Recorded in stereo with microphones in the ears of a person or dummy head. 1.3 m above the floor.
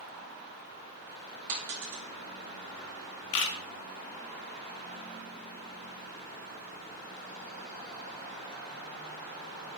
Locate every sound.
1.5 s a dropped coin: 40° right (ahead or behind), 0.9 m
3.3 s a camera shutter: 60° left (ahead or behind), 0.6 m